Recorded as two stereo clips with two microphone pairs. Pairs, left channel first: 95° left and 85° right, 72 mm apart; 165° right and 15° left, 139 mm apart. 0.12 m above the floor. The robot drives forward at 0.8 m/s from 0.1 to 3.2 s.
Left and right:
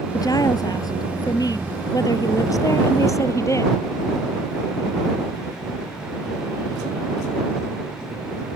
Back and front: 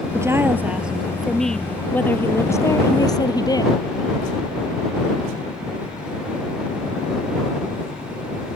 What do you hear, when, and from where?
0.1 s a woman speaking: 85° left; by 3.8 s 135° left